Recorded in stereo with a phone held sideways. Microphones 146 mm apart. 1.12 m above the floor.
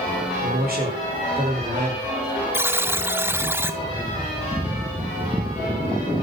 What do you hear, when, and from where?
0.4 s a man speaking: 75° right (ahead or behind), 4.5 m
2.5 s a buzzer: 15° right (ahead or behind), 0.7 m